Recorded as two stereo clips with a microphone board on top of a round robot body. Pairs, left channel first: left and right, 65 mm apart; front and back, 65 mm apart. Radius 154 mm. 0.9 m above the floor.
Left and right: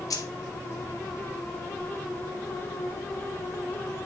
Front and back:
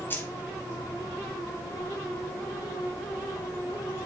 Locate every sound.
0.1 s keys jangling: 60° left, 1.3 m